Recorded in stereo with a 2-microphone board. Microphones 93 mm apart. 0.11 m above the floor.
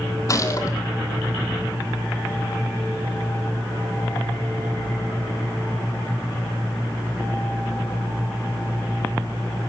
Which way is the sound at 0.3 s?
35° left (ahead or behind).